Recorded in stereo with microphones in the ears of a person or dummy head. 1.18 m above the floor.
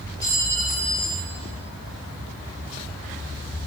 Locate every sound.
0.2 s a clink: 15° left (ahead or behind), 2.5 m